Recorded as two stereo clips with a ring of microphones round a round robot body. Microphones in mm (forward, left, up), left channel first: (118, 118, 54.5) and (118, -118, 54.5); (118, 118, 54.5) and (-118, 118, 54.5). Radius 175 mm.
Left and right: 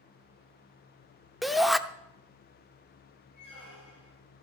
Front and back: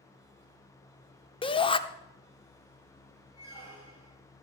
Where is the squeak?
175° right, 9 m.